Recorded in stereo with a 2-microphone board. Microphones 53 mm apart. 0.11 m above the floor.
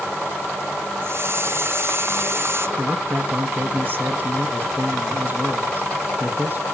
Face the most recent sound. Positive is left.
turn(degrees=-35)  # may be behind; listen again after turning